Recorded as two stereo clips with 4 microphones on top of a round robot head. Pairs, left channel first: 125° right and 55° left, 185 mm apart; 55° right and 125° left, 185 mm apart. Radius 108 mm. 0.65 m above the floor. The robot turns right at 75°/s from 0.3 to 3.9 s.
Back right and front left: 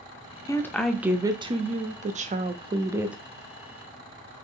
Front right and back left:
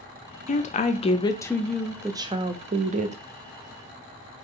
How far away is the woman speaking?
About 0.6 m.